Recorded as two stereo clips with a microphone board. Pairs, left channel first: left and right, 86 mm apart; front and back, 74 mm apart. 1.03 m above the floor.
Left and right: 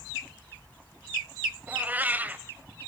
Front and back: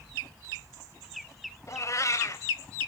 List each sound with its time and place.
1.7 s a cat meowing: 25° right, 1.1 m